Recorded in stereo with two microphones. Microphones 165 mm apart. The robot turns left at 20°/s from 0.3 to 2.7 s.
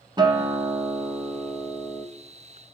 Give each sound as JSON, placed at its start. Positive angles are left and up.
{"t": 0.2, "sound": "a guitar", "azimuth_deg": -135, "distance_m": 0.7}